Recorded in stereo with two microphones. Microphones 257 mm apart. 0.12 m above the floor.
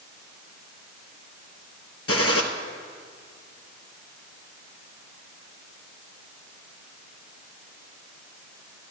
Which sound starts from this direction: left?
A gunshot, at 2.1 s.